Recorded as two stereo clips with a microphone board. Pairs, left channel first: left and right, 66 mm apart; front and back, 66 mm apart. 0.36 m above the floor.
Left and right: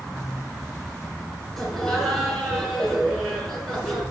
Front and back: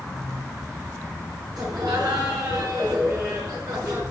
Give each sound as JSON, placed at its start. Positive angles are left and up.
{"t": 1.6, "sound": "laughter", "azimuth_deg": 180, "distance_m": 4.0}